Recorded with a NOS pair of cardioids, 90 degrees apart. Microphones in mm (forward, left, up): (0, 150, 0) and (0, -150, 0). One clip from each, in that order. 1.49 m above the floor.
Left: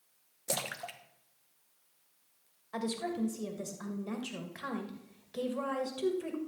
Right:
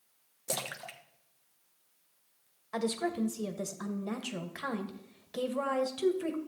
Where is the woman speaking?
25° right, 2 m.